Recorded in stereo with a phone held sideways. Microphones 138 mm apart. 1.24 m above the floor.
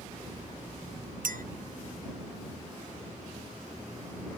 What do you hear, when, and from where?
1.2 s a clink: 85° right